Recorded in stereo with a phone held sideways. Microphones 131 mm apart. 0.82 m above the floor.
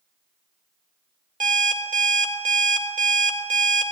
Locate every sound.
1.4 s an alarm clock: 80° right, 1.3 m